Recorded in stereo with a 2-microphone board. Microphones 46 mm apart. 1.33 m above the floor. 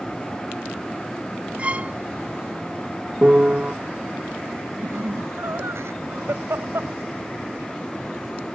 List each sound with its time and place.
1.6 s a violin: 30° right (ahead or behind)
3.2 s a piano: 30° right (ahead or behind)
4.8 s laughter: 70° right (ahead or behind)